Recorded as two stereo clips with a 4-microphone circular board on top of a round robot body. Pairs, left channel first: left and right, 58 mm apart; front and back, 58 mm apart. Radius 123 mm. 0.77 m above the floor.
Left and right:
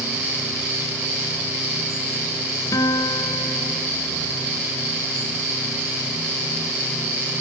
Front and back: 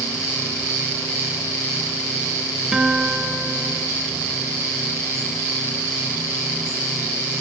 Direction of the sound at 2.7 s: 100° left.